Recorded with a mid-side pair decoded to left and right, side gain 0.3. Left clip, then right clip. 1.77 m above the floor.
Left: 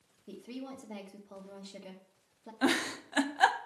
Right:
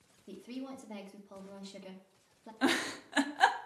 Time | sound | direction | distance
0.3 | a woman speaking | 5° left | 1.6 m
2.6 | a giggle | 10° left | 0.7 m